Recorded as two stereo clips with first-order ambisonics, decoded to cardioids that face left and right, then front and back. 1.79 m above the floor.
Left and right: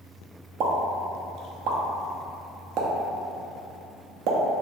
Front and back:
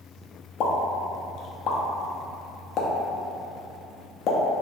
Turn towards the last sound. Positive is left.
turn(degrees=-50)